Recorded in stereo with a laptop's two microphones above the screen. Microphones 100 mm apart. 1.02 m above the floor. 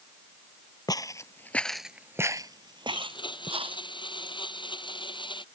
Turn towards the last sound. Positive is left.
turn(degrees=55)  # may be behind; listen again after turning